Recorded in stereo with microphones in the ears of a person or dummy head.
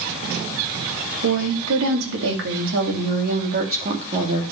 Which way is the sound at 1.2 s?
80° right.